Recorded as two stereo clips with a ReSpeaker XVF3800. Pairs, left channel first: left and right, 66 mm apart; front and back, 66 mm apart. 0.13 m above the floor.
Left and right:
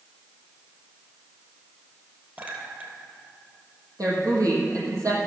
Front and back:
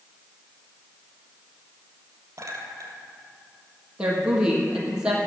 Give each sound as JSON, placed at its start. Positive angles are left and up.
{"t": 2.4, "sound": "a clink", "azimuth_deg": -145, "distance_m": 2.0}
{"t": 4.0, "sound": "a woman speaking", "azimuth_deg": -105, "distance_m": 3.5}